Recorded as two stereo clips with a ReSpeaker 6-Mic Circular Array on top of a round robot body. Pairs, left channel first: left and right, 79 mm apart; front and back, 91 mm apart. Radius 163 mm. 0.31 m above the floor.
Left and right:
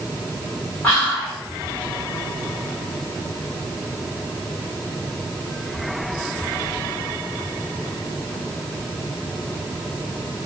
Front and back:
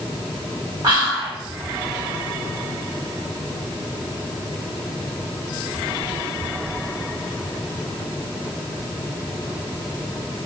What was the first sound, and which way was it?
Whispering, 145° left.